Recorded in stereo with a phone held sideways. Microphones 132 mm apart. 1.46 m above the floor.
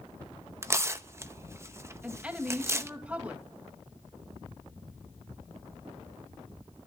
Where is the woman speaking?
10° right (ahead or behind), 2.5 m.